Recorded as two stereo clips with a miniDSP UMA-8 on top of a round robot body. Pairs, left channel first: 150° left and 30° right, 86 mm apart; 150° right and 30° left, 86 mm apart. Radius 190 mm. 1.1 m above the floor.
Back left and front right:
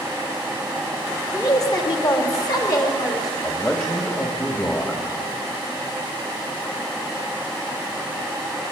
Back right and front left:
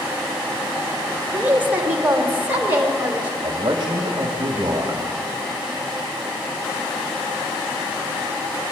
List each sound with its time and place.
1.3 s a woman speaking: 100° left, 2.5 m
3.4 s a man speaking: 80° left, 1.9 m